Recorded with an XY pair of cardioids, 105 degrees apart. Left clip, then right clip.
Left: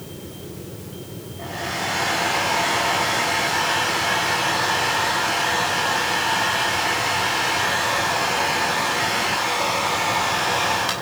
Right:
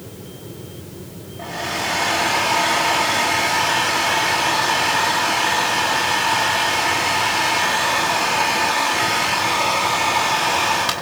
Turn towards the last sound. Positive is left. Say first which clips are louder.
# right 3 dB
turn(degrees=-25)